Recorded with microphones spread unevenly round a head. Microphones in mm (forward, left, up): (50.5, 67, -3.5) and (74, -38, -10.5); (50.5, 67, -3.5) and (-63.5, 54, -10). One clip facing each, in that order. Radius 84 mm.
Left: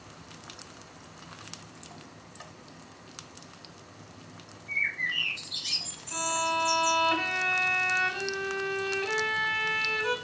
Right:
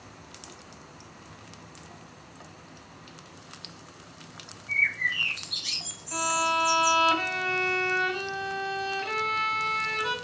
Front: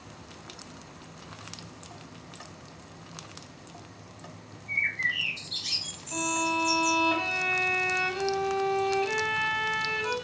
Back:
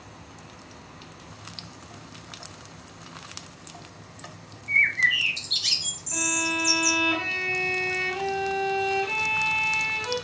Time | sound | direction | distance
4.7 | a bird | 160° right | 0.7 m
6.1 | a violin | 30° right | 1.5 m